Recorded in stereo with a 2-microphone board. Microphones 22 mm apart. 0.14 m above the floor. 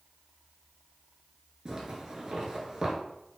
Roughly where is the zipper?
Right.